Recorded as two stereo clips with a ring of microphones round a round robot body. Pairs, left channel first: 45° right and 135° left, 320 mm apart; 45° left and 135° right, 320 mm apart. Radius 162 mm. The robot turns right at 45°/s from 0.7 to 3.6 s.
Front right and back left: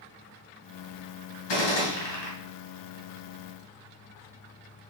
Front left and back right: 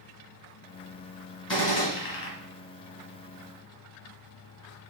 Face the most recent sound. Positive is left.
turn(degrees=60)